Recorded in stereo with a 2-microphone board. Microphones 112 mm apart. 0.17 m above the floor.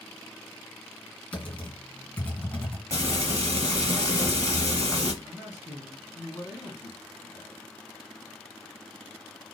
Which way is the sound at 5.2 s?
35° left (ahead or behind).